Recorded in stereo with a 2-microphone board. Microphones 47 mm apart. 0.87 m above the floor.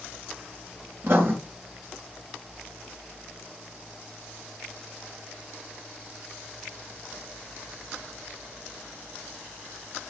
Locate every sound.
1.0 s writing: 45° right (ahead or behind), 2.5 m